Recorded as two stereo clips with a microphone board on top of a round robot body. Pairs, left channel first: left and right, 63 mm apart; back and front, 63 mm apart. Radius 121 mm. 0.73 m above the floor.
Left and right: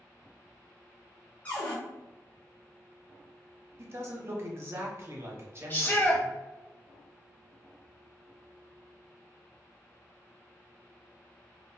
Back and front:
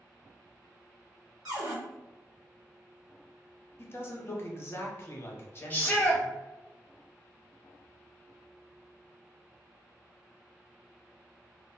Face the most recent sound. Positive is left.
turn(degrees=135)